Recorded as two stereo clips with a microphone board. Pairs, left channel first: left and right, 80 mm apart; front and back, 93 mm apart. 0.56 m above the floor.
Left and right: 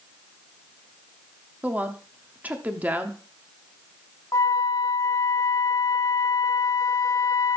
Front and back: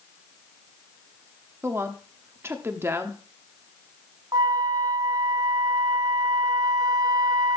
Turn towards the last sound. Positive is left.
turn(degrees=135)